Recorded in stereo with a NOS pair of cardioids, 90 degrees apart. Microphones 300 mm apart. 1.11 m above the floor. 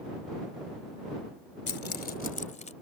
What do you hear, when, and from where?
1.7 s keys jangling: 35° left; by 2.7 s 25° left